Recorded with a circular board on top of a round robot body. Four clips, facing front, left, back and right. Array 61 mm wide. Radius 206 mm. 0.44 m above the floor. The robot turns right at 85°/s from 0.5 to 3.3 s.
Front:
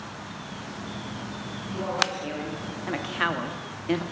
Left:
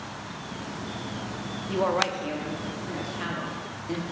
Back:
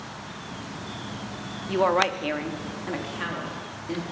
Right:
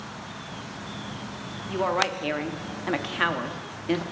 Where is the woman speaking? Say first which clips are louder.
Even, back 7 dB; 175° left, 1.0 m; by 4.0 s 50° right, 1.0 m.